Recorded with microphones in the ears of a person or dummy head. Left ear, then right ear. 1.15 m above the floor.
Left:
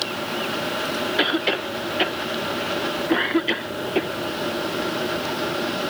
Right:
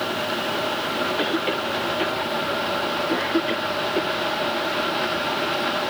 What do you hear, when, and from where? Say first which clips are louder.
1.2 s a cough: left 2 dB; 30° left (ahead or behind)